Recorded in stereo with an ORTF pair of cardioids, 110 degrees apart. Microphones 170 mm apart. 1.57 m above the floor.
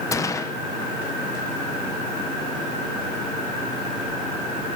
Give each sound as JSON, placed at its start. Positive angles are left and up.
{"t": 0.1, "sound": "a gunshot", "azimuth_deg": 20, "distance_m": 1.1}